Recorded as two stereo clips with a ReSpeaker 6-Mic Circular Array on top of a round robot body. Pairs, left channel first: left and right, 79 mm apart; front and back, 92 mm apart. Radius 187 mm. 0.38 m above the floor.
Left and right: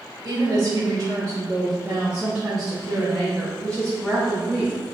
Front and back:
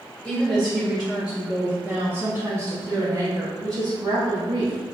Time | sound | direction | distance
0.2 | a woman speaking | 70° right | 1.7 m